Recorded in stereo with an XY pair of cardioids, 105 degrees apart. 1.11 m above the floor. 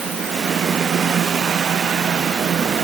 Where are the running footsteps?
No running footsteps in this recording.